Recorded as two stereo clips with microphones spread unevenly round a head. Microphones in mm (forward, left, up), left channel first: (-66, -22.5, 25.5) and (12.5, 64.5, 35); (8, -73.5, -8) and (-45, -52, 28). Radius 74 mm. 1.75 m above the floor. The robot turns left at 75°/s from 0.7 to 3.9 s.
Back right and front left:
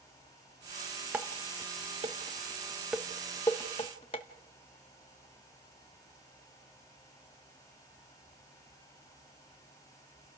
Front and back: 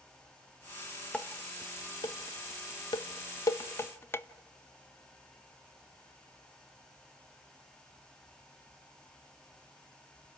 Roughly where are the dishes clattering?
Left.